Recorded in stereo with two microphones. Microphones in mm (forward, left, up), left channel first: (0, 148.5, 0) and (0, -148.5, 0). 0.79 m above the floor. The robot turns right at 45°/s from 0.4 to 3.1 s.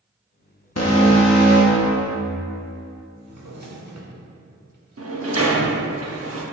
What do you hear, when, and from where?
0.8 s an alarm: 105° left, 1.0 m; by 2.2 s 170° left, 1.0 m
3.2 s a drawer: 65° right (ahead or behind), 0.9 m
5.0 s a sliding door: 50° right (ahead or behind), 0.8 m